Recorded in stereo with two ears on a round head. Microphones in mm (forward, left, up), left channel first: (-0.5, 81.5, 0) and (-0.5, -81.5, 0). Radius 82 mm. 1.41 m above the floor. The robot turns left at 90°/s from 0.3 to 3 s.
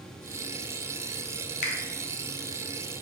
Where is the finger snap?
45° left (ahead or behind), 0.6 m; by 1.8 s 55° left (ahead or behind), 0.6 m.